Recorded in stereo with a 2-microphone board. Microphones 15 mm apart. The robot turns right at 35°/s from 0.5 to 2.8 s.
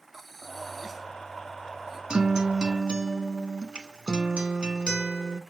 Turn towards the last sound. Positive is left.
turn(degrees=-80)